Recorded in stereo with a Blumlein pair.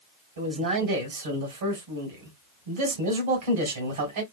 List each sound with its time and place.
0.4 s a man speaking: 60° right, 1.6 m